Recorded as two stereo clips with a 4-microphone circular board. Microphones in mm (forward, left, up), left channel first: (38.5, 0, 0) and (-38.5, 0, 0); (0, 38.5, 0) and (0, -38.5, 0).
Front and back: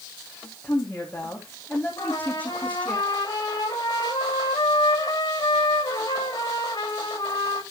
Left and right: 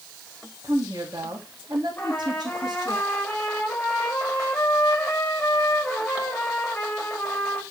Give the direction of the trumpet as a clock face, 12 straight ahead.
11 o'clock.